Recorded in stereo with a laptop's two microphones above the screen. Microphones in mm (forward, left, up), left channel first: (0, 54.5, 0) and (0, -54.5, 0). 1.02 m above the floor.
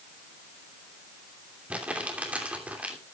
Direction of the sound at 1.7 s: 10° right (ahead or behind).